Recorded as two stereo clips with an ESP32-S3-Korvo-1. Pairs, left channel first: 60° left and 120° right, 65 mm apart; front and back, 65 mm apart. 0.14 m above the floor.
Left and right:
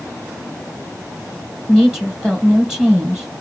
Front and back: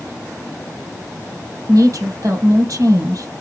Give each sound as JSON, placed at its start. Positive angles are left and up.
{"t": 1.7, "sound": "a woman speaking", "azimuth_deg": 160, "distance_m": 3.0}